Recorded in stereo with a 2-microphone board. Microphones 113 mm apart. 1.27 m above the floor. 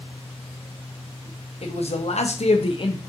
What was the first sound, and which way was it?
A man speaking, 60° left (ahead or behind).